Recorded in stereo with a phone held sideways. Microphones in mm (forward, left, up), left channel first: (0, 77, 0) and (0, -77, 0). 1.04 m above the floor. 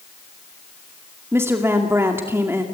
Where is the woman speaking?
15° right (ahead or behind), 2 m.